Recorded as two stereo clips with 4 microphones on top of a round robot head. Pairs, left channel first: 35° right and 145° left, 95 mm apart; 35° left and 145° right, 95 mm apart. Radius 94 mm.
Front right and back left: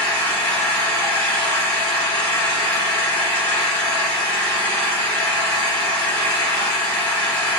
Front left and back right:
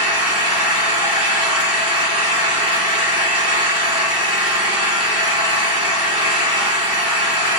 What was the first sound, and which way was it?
An engine running, 110° right.